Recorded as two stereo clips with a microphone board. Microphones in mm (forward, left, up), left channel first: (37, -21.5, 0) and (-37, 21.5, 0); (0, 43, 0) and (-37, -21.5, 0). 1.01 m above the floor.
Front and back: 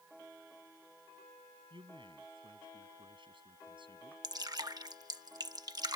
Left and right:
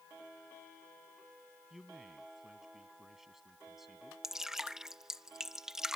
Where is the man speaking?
155° left.